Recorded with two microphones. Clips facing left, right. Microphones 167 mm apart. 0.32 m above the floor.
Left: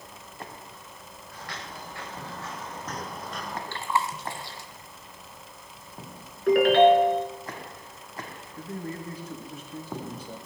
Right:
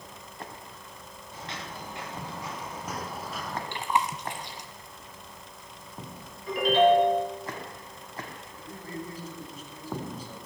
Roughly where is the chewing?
Centre.